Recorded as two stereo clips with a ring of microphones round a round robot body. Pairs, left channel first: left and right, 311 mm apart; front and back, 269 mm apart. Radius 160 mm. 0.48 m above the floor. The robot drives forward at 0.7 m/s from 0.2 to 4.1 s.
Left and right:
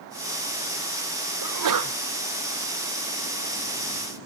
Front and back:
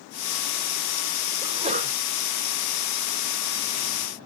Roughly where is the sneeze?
Right.